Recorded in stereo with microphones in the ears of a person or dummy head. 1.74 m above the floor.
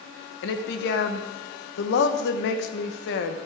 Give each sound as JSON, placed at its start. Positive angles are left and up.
{"t": 0.4, "sound": "a woman speaking", "side_deg": 60, "distance_m": 1.5}